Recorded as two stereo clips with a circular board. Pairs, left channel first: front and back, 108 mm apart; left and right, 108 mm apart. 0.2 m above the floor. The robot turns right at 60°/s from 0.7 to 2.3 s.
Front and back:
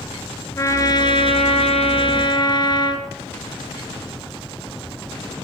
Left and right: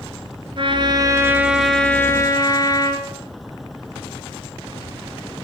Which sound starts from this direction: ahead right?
A trumpet, at 0.6 s.